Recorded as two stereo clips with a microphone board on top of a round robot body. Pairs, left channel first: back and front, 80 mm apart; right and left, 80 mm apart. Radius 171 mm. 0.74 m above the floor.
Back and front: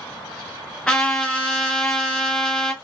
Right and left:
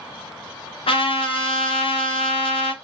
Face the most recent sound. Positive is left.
turn(degrees=-105)